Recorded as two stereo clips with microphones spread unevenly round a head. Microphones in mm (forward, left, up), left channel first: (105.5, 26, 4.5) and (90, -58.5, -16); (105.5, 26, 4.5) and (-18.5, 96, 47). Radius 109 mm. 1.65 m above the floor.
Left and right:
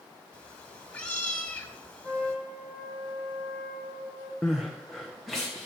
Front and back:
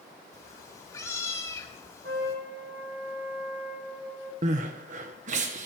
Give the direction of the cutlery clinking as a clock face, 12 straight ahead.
No cutlery clinking in this recording.